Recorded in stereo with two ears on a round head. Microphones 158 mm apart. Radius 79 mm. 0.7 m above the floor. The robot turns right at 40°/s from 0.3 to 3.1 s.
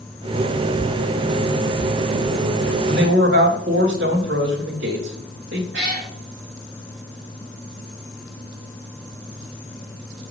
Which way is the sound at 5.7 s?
75° right (ahead or behind).